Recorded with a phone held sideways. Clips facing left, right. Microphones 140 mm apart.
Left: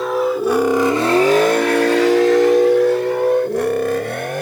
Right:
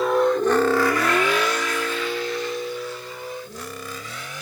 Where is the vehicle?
Centre (ahead or behind); by 4.4 s 60° left (ahead or behind).